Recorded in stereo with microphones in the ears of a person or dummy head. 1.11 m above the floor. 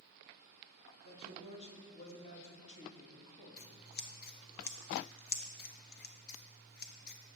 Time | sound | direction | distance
1.0 | a man speaking | 40° left (ahead or behind) | 2 m
3.6 | scissors | 45° left (ahead or behind) | 0.7 m